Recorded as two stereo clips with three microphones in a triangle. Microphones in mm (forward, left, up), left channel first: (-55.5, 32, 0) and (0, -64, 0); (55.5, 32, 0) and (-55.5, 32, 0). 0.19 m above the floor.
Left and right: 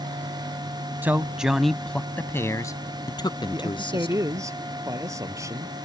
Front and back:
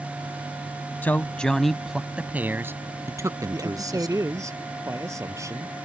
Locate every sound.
1.0 s a man speaking: 35° right; by 4.2 s 135° left
3.5 s a man speaking: 120° right